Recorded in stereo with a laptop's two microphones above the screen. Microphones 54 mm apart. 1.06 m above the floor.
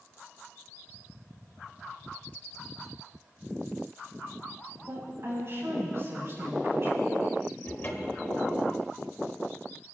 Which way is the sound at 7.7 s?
40° left (ahead or behind).